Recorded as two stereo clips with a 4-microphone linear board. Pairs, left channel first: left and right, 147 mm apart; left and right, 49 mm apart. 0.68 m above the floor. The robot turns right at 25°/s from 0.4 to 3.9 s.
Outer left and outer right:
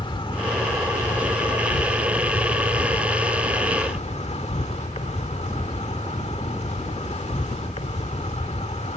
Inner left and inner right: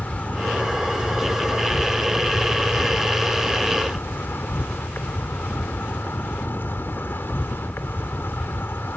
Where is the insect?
40° left; by 9.0 s 125° left.